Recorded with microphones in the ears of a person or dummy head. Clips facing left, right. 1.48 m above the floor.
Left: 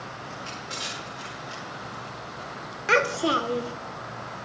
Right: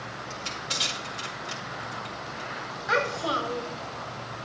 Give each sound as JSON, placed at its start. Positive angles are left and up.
{"t": 0.3, "sound": "crushing", "side_deg": -85, "distance_m": 3.5}
{"t": 2.9, "sound": "a child speaking", "side_deg": 40, "distance_m": 0.7}